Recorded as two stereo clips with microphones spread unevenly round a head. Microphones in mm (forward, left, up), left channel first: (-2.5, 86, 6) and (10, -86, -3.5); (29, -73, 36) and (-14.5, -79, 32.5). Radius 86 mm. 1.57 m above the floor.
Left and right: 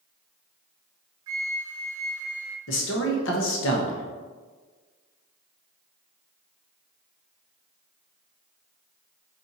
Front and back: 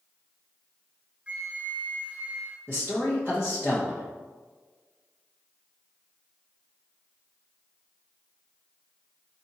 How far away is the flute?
About 0.8 m.